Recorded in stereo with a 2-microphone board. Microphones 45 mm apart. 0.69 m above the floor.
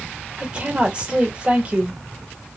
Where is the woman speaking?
25° right (ahead or behind), 1.9 m.